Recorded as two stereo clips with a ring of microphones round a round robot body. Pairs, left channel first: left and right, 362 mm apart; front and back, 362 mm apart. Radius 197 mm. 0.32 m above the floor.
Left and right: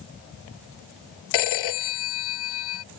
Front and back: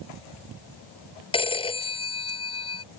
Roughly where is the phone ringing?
Left.